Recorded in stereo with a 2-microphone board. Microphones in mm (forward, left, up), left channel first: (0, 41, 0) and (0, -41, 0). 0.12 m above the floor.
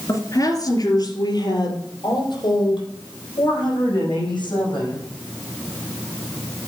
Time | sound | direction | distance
0.1 | a woman speaking | 40° left (ahead or behind) | 2 m